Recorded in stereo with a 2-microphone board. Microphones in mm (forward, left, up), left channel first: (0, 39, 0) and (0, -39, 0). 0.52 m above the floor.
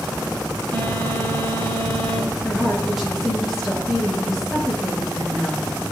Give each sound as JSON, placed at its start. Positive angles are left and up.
{"t": 0.7, "sound": "a phone buzzing", "side_deg": -75, "distance_m": 3.5}
{"t": 2.4, "sound": "a woman speaking", "side_deg": -5, "distance_m": 7.5}